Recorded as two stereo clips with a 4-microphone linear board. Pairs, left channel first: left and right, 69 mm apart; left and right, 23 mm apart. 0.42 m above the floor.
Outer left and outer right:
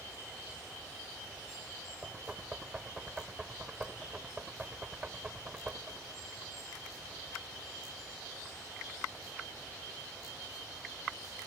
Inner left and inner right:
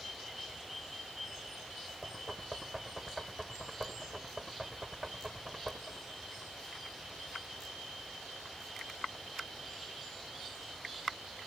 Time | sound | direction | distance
2.0 | knocking | 15° right (ahead or behind) | ?